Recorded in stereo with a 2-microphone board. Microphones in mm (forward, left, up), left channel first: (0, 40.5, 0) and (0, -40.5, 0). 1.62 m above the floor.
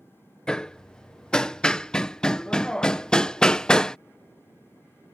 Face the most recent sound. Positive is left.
turn(degrees=10)  # may be behind; listen again after turning